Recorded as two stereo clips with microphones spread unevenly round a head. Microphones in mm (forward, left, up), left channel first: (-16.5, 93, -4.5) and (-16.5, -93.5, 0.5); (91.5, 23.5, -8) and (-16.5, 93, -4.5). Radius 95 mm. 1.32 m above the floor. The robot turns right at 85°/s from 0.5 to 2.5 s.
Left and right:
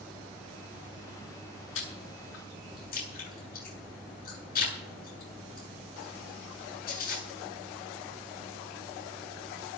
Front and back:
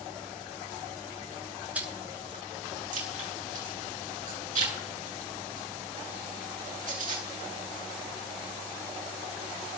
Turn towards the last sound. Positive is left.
turn(degrees=130)